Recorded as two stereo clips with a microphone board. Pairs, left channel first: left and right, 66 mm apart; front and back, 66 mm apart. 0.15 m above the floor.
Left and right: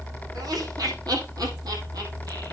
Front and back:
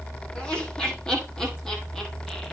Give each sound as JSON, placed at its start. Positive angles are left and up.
{"t": 0.3, "sound": "laughter", "azimuth_deg": -75, "distance_m": 6.0}